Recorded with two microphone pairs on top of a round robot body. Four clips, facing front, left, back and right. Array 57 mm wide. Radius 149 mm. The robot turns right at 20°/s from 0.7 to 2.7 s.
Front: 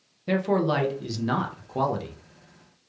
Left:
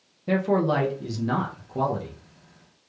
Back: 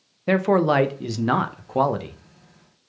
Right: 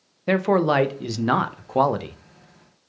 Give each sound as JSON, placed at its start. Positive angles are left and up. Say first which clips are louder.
{"t": 0.3, "sound": "a man speaking", "louder": "right 3 dB, back 5 dB", "azimuth_deg": -140, "distance_m": 0.5}